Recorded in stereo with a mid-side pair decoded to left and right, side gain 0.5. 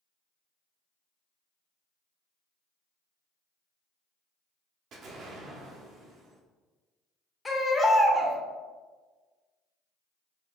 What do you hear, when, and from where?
4.9 s an explosion: 60° right, 0.8 m
7.5 s a baby crying: 30° left, 0.8 m